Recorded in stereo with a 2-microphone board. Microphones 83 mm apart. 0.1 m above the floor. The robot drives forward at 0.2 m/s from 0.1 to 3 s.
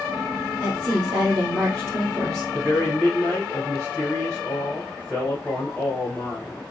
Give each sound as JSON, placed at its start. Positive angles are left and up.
{"t": 0.6, "sound": "a woman speaking", "side_deg": -15, "distance_m": 1.5}
{"t": 2.5, "sound": "a man speaking", "side_deg": 5, "distance_m": 1.5}